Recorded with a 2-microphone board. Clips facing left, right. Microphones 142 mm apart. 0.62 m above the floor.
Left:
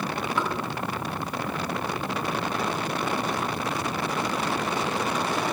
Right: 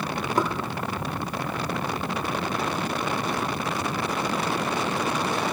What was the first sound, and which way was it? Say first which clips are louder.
Knocking: right 5 dB; 40° right (ahead or behind).